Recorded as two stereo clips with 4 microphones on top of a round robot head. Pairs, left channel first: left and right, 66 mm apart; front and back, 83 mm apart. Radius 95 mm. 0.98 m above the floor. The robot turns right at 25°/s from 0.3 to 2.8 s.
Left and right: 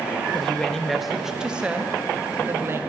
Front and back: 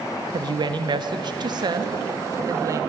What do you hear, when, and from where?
0.3 s a woman speaking: 165° left, 0.7 m; by 2.8 s 135° right, 0.7 m